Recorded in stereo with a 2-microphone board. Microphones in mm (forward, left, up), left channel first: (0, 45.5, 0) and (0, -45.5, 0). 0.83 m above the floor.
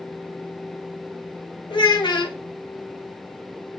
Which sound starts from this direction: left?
A child speaking, at 1.7 s.